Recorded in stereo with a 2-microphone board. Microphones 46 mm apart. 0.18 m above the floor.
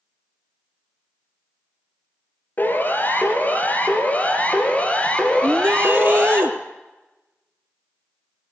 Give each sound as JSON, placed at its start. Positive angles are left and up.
{"t": 2.6, "sound": "a siren", "side_deg": 40, "distance_m": 5.0}
{"t": 5.4, "sound": "a shout", "side_deg": -70, "distance_m": 3.0}